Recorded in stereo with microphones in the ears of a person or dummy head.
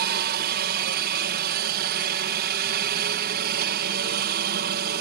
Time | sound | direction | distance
0.0 | a helicopter | 55° right (ahead or behind) | ?